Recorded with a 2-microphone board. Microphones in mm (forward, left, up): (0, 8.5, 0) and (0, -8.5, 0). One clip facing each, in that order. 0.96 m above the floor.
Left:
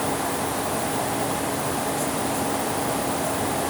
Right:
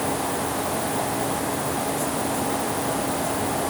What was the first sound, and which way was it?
Only background noise.